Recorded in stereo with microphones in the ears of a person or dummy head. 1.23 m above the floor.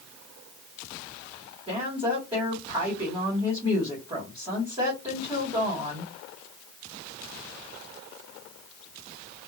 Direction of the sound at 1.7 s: 20° right (ahead or behind).